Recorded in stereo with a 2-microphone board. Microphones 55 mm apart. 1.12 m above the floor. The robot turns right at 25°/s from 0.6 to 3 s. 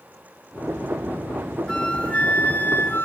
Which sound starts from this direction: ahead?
A flute, at 1.7 s.